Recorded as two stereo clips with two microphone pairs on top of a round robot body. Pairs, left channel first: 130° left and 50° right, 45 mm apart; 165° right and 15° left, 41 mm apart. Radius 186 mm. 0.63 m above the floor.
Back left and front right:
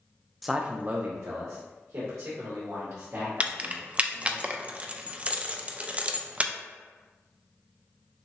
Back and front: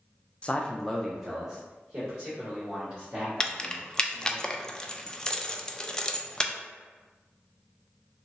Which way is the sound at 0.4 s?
150° right.